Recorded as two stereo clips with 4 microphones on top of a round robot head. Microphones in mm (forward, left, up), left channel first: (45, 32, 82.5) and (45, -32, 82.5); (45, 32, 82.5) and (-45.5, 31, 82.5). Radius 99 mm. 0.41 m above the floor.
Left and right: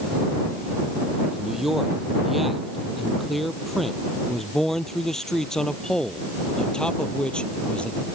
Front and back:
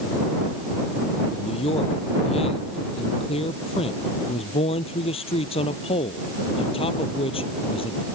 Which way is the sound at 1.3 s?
5° right.